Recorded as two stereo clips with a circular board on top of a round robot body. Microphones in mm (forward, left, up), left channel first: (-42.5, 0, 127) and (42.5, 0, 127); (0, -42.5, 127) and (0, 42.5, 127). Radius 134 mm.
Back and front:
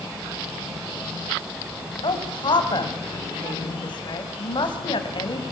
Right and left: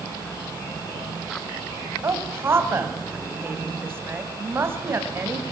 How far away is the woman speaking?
About 3 m.